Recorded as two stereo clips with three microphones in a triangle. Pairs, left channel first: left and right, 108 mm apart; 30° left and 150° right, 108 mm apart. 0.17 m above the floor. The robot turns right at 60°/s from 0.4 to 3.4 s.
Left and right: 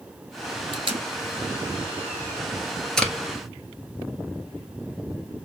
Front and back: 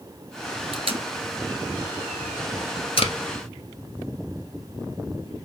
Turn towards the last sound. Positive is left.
turn(degrees=30)